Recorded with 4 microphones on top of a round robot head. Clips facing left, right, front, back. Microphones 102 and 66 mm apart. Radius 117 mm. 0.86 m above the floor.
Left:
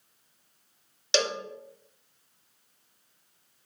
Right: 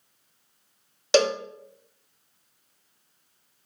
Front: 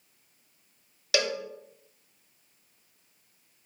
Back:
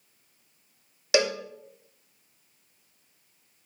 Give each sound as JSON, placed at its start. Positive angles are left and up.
{"t": 1.1, "sound": "a cowbell", "azimuth_deg": -120, "distance_m": 0.8}